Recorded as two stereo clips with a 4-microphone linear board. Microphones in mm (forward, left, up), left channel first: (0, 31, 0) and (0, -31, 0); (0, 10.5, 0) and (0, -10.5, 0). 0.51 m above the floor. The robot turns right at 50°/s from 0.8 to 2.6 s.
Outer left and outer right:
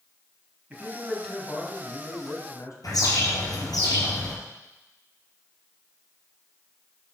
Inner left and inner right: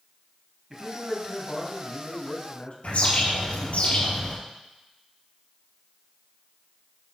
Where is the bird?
80° left, 3 m.